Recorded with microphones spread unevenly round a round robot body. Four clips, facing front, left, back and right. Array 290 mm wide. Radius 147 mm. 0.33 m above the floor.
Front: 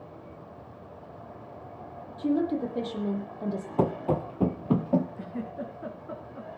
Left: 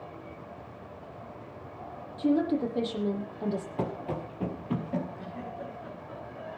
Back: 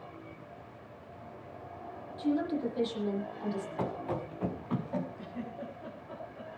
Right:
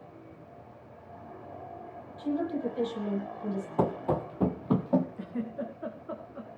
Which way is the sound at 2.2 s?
50° left.